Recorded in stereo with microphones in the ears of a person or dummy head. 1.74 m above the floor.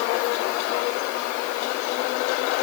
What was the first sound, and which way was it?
Only background noise.